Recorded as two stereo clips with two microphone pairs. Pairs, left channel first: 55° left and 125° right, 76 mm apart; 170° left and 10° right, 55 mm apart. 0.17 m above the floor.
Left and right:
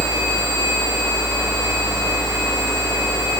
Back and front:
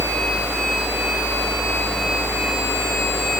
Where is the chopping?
I don't hear chopping.